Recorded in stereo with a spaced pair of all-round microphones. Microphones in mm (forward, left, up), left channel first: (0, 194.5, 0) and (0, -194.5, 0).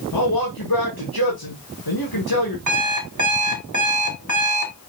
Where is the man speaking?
70° left (ahead or behind), 1.4 m.